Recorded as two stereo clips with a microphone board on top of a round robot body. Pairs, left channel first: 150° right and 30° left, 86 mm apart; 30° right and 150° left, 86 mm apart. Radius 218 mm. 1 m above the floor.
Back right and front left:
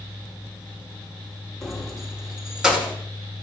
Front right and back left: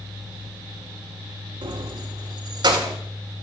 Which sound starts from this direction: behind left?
Keys jangling, at 1.6 s.